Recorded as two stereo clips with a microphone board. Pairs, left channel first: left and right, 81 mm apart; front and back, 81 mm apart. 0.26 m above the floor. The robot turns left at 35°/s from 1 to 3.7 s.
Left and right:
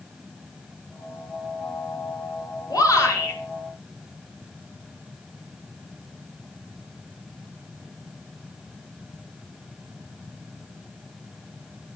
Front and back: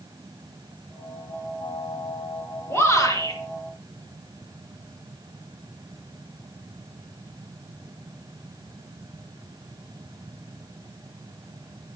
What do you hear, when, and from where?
2.7 s a shout: 55° left, 5 m; by 3.4 s 35° left, 5 m